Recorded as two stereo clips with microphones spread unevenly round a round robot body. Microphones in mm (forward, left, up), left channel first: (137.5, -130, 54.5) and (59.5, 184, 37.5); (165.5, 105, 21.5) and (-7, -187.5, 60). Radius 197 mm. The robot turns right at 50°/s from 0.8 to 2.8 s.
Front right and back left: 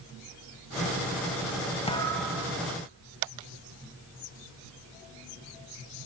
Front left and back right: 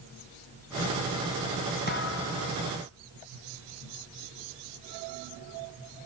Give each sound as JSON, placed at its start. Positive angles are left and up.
{"t": 1.9, "sound": "a thud", "azimuth_deg": -5, "distance_m": 4.0}